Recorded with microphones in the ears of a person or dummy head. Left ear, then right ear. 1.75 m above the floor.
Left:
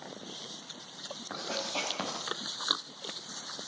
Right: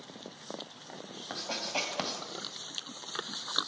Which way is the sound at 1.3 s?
20° right (ahead or behind).